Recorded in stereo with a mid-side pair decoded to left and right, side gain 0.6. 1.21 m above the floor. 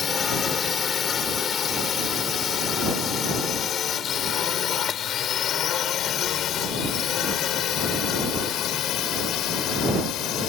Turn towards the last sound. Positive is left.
turn(degrees=60)